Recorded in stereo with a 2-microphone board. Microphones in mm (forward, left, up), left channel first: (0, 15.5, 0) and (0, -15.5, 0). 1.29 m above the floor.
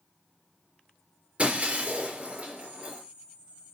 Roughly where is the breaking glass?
Right.